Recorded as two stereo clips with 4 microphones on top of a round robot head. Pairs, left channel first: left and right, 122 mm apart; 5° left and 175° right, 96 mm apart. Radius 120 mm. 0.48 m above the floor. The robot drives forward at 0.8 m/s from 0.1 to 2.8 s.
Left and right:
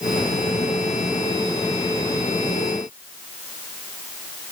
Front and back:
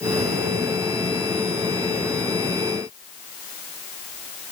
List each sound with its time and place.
Only background noise.